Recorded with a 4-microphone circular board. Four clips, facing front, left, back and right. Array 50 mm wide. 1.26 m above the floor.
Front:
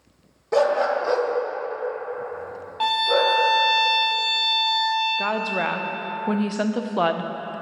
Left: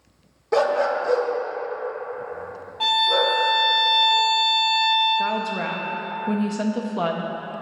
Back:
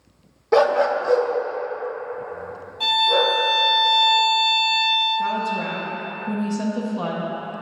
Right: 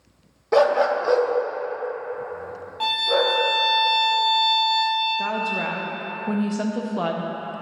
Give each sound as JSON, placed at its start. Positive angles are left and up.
{"t": 0.5, "sound": "a dog barking", "azimuth_deg": -155, "distance_m": 0.8}
{"t": 2.8, "sound": "a violin", "azimuth_deg": -5, "distance_m": 1.5}
{"t": 5.2, "sound": "a woman speaking", "azimuth_deg": 5, "distance_m": 0.5}